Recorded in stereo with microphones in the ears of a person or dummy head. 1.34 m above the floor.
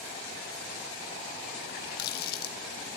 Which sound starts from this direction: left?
A running tap, at 1.6 s.